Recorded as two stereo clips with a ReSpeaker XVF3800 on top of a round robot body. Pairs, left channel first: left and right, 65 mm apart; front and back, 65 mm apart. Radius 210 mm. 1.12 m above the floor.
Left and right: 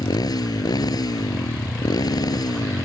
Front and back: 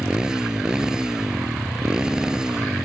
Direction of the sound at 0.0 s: 100° left.